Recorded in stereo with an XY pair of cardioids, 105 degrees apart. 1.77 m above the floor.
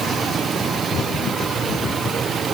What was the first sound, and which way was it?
Only background noise.